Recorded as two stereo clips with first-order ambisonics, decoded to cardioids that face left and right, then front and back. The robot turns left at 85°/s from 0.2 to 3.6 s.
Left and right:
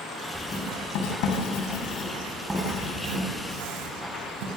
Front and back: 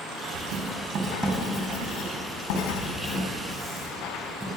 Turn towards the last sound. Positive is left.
turn(degrees=-100)